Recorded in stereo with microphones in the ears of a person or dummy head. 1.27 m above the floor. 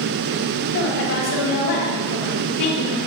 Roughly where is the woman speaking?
Left.